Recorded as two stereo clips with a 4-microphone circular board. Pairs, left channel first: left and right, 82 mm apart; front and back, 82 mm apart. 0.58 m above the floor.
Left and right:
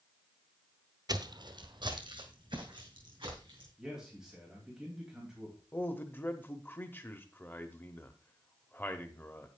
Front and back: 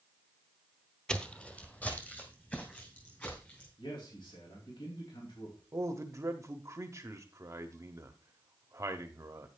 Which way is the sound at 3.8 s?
5° right.